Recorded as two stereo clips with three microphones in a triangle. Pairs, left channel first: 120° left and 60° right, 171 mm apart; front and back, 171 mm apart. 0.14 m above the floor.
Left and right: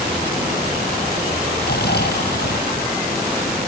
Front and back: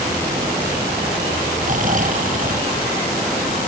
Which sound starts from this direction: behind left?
Snoring, at 1.6 s.